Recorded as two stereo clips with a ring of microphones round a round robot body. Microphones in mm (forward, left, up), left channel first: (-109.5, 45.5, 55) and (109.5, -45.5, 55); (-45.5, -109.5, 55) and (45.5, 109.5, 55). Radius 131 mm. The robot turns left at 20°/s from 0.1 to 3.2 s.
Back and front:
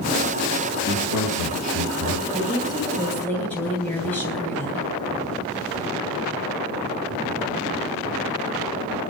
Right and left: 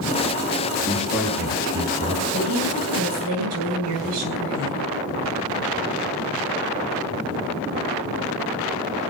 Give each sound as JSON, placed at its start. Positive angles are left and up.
{"t": 0.9, "sound": "a man speaking", "azimuth_deg": 160, "distance_m": 6.5}
{"t": 2.3, "sound": "a woman speaking", "azimuth_deg": 90, "distance_m": 8.5}